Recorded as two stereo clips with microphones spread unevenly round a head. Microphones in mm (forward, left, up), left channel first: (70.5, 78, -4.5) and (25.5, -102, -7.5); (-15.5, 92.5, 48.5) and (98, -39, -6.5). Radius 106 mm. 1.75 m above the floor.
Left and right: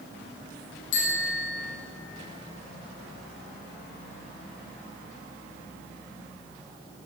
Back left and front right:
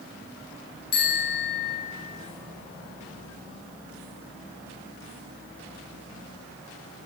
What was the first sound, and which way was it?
A bicycle bell, 110° left.